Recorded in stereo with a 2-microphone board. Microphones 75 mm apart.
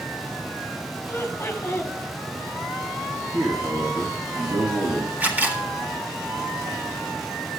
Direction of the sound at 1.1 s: 35° left (ahead or behind).